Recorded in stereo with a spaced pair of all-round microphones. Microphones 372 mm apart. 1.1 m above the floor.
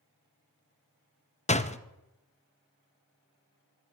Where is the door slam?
20° left (ahead or behind), 0.5 m.